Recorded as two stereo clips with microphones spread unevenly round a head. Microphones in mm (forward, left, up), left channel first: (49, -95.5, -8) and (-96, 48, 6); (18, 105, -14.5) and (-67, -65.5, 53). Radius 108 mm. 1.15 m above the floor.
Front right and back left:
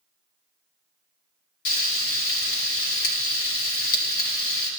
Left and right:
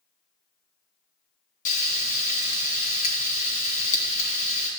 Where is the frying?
Straight ahead, 1.7 m.